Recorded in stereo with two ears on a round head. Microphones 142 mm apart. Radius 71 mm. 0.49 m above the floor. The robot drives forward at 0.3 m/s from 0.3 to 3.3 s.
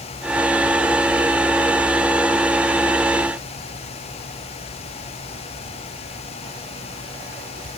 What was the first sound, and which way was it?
Only background noise.